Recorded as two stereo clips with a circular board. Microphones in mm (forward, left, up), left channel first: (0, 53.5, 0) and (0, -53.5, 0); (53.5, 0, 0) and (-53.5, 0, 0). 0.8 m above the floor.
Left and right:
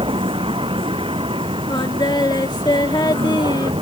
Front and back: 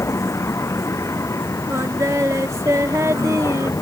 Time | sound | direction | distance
0.0 | a vehicle | 60° right | ?
1.7 | singing | 125° left | ?